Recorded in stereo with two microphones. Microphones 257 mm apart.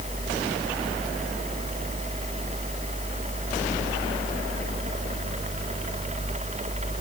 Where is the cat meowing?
I don't hear a cat meowing.